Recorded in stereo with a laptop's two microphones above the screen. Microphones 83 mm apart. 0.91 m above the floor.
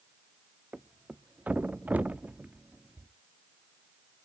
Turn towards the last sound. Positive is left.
turn(degrees=-20)  # may be behind; listen again after turning